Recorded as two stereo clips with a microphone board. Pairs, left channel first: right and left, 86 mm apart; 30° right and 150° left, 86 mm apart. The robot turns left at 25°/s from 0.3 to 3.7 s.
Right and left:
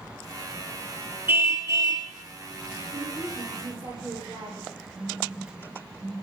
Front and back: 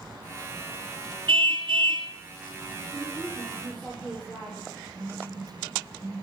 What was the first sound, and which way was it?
A car horn, 155° left.